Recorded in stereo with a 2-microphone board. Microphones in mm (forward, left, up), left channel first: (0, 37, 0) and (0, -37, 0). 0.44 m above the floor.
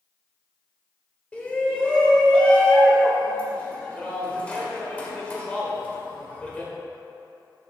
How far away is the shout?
About 1.4 m.